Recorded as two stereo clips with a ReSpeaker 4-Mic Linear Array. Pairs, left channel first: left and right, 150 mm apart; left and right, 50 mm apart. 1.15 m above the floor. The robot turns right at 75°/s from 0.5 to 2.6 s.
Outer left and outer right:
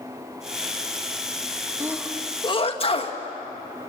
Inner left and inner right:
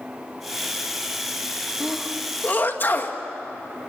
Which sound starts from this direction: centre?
A sneeze, at 1.8 s.